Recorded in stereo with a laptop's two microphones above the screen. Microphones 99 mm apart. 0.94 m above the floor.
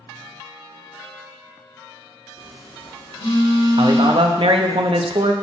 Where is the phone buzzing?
70° left (ahead or behind), 2 m.